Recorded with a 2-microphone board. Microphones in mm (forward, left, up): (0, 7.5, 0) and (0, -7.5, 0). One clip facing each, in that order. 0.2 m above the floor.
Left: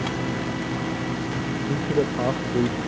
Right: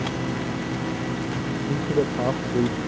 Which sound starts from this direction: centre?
A man speaking, at 1.7 s.